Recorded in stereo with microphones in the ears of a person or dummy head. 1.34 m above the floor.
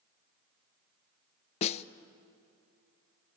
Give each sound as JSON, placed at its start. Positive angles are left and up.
{"t": 1.6, "sound": "a snare drum", "side_deg": 35, "distance_m": 0.6}